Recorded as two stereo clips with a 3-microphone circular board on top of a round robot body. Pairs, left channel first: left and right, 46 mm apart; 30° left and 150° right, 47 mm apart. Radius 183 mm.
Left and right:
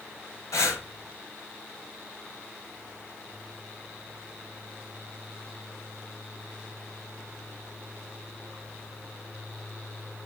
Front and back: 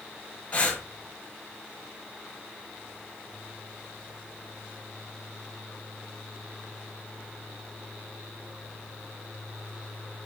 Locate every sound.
0.5 s breathing: 100° left, 1.2 m